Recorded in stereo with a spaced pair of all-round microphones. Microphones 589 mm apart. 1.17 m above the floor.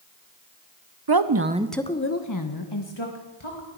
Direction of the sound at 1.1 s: 45° right (ahead or behind).